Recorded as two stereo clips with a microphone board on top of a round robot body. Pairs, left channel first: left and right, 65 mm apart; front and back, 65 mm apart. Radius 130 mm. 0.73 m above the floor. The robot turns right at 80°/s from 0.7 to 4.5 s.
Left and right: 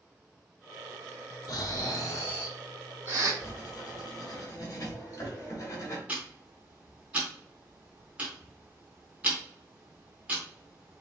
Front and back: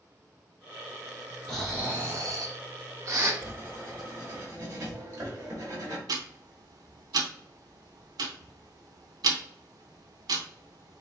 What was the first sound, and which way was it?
Snoring, 80° left.